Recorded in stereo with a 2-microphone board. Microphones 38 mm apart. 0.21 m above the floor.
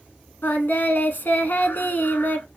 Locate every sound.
0.4 s singing: 65° left (ahead or behind), 0.8 m